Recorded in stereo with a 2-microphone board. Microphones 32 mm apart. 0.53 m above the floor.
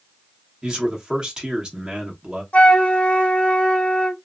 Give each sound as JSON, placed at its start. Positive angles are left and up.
{"t": 0.6, "sound": "a man speaking", "side_deg": -25, "distance_m": 1.0}
{"t": 2.5, "sound": "a flute", "side_deg": 45, "distance_m": 0.9}